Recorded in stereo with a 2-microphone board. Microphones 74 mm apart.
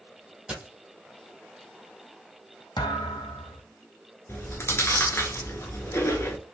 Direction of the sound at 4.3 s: 35° left (ahead or behind).